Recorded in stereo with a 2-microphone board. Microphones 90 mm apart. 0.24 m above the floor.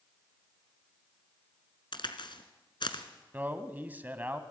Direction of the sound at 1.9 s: 65° left (ahead or behind).